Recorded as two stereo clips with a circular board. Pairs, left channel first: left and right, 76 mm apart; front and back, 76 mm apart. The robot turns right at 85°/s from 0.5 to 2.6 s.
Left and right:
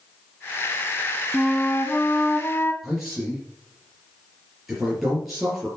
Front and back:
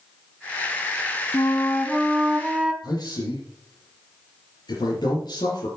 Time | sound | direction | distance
1.3 | a flute | 5° left | 1.0 m
2.8 | a man speaking | straight ahead | 4 m